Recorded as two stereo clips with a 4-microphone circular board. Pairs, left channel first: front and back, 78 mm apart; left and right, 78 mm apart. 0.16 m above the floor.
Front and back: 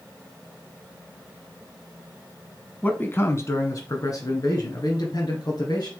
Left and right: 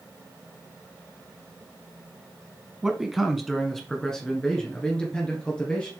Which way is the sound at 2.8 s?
15° right.